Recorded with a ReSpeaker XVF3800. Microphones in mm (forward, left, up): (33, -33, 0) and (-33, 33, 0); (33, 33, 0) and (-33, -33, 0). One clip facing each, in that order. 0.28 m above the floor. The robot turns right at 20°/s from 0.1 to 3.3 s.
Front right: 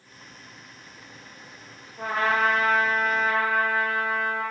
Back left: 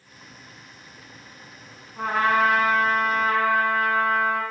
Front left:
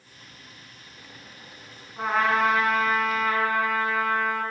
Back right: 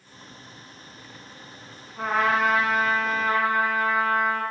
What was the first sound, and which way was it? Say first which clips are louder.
A trumpet: back left 3 dB, even; 130° left.